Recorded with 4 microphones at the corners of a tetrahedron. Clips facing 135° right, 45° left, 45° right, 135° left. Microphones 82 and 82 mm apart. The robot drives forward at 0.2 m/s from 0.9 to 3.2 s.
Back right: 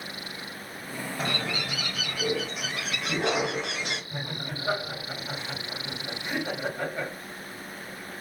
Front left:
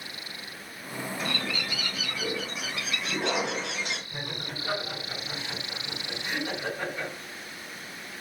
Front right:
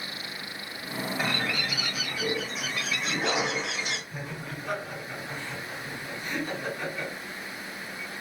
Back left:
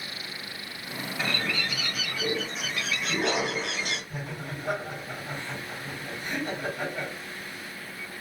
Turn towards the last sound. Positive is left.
turn(degrees=170)